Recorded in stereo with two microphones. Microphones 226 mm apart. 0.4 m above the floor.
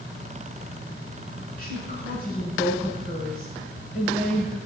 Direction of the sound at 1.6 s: 40° left (ahead or behind).